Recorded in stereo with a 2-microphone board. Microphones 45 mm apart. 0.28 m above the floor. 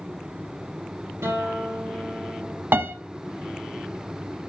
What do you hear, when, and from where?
1.2 s a guitar: 85° right, 5 m
2.7 s a piano: 60° right (ahead or behind), 0.9 m